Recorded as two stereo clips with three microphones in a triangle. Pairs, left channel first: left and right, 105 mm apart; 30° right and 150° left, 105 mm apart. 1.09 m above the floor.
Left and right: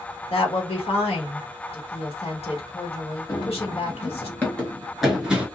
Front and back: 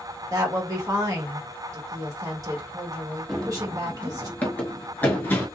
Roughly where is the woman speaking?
Left.